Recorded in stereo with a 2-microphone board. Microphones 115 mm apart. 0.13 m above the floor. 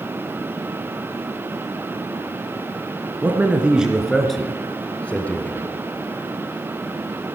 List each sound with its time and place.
3.2 s a man speaking: 15° right (ahead or behind), 1.5 m; by 5.7 s 15° left (ahead or behind), 2.5 m